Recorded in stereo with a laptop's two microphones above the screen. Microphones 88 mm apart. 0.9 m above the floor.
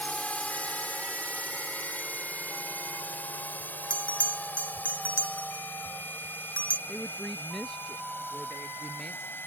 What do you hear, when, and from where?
0.0 s a drone: 15° left (ahead or behind); by 9.5 s 25° left (ahead or behind)
3.9 s a bell: 15° left (ahead or behind)
6.9 s a woman speaking: 5° left (ahead or behind)